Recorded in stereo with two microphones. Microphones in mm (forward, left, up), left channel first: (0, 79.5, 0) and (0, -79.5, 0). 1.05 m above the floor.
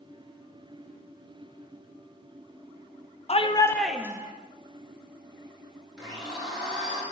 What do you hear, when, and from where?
3.3 s a shout: 45° left (ahead or behind), 0.7 m; by 4.3 s 25° right (ahead or behind), 0.8 m
6.0 s a blender: 5° right (ahead or behind), 4 m